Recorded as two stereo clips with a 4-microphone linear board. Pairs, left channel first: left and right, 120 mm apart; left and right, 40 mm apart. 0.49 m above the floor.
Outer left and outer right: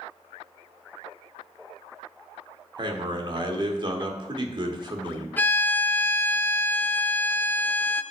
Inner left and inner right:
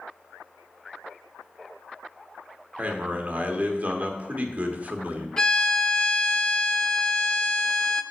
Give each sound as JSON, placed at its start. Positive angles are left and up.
{"t": 2.8, "sound": "a man speaking", "side_deg": -40, "distance_m": 1.2}
{"t": 5.4, "sound": "a violin", "side_deg": 15, "distance_m": 0.6}